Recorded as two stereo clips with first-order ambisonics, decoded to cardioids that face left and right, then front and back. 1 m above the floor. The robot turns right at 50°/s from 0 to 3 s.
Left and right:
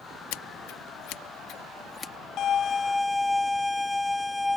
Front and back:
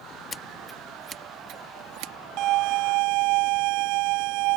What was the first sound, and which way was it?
Scissors, 75° left.